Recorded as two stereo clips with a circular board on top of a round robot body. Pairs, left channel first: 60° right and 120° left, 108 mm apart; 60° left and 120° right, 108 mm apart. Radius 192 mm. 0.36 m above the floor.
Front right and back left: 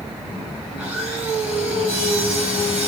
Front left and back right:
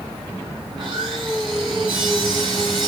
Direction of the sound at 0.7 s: 165° right.